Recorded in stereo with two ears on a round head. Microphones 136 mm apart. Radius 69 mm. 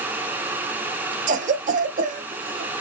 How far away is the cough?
About 0.7 m.